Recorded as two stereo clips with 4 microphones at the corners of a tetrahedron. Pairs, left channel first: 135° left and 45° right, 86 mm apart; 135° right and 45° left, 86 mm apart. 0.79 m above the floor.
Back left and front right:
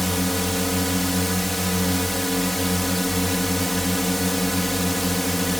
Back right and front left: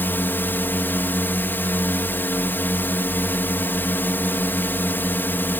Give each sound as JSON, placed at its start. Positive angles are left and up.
{"t": 0.0, "sound": "a drone", "azimuth_deg": -135}